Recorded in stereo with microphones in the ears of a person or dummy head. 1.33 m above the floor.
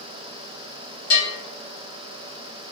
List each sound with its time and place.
1.1 s a bell: 65° left (ahead or behind), 1.2 m